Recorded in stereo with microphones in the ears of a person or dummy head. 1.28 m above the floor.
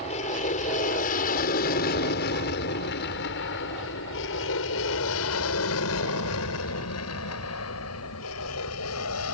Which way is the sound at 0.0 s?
40° left (ahead or behind).